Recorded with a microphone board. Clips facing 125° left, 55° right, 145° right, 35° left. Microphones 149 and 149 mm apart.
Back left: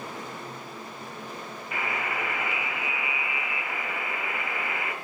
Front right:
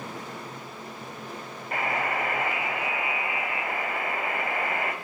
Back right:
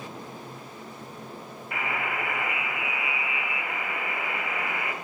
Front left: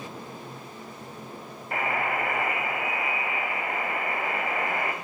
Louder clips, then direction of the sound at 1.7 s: Front right 4 dB, front left 4 dB; 10° right.